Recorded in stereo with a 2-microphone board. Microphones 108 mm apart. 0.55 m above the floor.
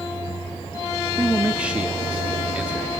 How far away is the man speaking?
About 0.6 m.